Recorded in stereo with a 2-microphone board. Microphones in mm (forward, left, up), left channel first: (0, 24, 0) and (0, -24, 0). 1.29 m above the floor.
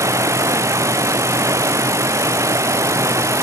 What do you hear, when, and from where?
0.0 s running water: 80° right